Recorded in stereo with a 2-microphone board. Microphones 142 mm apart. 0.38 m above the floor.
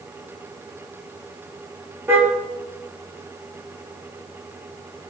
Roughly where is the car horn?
Centre.